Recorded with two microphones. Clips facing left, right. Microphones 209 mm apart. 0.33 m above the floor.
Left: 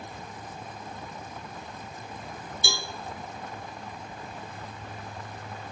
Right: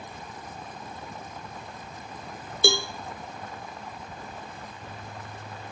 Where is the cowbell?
65° right (ahead or behind), 0.9 m.